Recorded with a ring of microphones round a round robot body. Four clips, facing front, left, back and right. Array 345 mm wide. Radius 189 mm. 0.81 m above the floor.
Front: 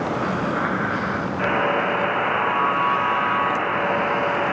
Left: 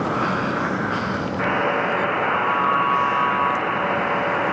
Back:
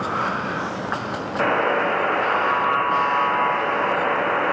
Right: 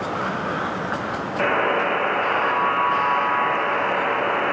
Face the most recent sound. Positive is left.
turn(degrees=-170)